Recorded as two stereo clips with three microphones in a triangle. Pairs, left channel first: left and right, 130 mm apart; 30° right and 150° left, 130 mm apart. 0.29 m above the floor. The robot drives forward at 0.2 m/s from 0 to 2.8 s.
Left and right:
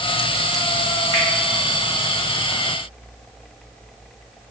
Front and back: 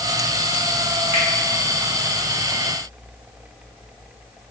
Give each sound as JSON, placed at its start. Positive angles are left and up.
{"t": 1.1, "sound": "a finger snap", "azimuth_deg": -30, "distance_m": 1.5}